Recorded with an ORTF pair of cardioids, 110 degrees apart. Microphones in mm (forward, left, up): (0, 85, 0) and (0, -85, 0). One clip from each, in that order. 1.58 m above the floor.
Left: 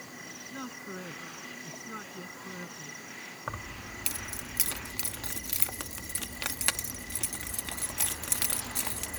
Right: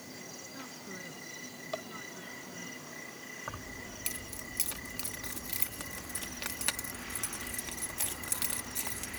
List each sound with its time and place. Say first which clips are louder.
0.5 s a man speaking: left 4 dB; 45° left
3.5 s keys jangling: left 6 dB; 30° left